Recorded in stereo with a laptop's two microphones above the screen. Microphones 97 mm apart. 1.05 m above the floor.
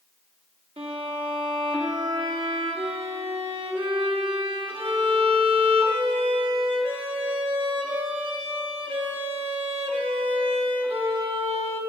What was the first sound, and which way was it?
A violin, 75° right (ahead or behind).